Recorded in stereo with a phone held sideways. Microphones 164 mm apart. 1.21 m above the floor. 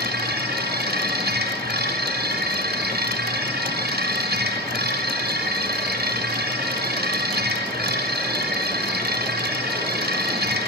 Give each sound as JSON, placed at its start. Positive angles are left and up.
{"t": 0.0, "sound": "a machine running", "side_deg": -75, "distance_m": 6.0}